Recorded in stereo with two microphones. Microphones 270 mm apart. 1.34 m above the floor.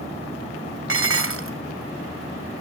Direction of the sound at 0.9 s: 55° right (ahead or behind).